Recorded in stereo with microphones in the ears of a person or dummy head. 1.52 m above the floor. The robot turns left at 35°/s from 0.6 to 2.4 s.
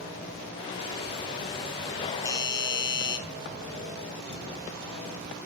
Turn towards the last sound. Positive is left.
turn(degrees=20)  # may be behind; listen again after turning